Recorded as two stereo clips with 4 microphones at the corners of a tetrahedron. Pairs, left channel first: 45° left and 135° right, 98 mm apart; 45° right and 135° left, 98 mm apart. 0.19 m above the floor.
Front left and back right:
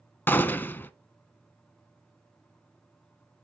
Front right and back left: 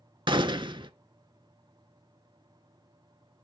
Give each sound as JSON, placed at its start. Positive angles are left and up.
{"t": 0.3, "sound": "a gunshot", "azimuth_deg": 110, "distance_m": 0.5}